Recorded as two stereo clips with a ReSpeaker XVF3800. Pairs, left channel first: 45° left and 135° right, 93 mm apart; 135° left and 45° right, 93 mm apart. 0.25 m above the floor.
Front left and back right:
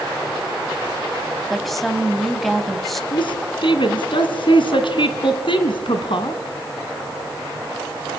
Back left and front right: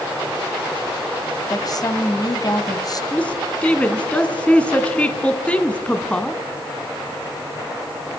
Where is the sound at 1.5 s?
135° left, 1.7 m.